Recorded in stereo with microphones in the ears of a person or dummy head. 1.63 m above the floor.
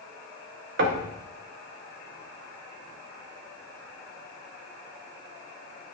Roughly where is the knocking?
Right.